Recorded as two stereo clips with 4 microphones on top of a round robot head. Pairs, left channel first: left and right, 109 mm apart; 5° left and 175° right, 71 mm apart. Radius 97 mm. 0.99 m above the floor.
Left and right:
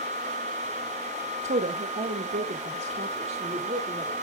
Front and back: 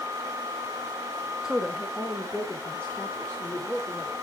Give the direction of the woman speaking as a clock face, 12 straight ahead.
3 o'clock.